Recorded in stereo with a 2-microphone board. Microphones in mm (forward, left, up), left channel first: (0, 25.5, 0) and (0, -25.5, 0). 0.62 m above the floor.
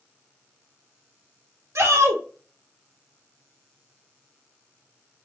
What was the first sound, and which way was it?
A shout, 65° right (ahead or behind).